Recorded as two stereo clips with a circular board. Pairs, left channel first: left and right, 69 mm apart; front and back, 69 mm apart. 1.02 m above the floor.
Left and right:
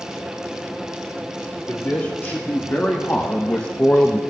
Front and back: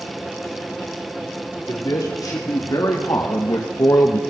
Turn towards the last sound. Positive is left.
turn(degrees=25)